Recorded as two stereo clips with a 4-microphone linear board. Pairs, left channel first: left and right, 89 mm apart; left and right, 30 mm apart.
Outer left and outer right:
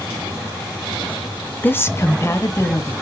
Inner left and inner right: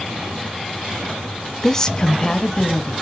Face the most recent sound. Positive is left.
turn(degrees=30)  # may be behind; listen again after turning